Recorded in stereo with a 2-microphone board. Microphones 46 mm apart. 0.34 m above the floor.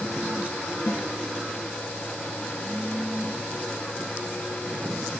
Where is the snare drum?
65° left (ahead or behind), 2.0 m.